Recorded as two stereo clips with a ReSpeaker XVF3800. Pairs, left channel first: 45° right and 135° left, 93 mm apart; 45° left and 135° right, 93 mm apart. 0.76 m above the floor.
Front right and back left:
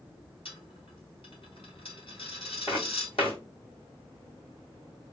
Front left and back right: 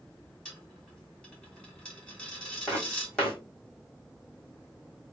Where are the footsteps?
35° right, 2 m.